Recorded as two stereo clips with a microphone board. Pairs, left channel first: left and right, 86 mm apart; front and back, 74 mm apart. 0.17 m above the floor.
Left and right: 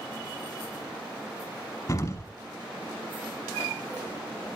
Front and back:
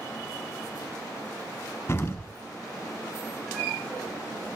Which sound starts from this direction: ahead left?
An explosion, at 1.9 s.